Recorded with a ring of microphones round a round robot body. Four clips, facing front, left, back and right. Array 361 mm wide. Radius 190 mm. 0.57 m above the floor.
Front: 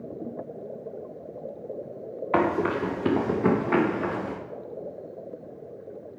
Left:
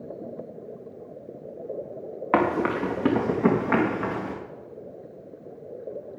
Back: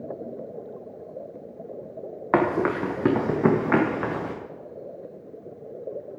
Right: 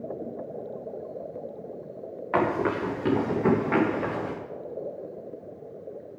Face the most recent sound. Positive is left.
turn(degrees=160)